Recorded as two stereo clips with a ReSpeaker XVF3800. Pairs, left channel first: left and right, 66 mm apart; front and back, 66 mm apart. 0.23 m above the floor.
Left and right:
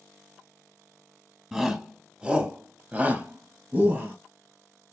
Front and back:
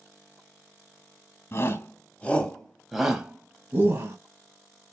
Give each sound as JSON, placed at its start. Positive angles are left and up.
{"t": 1.5, "sound": "a shout", "azimuth_deg": -10, "distance_m": 1.5}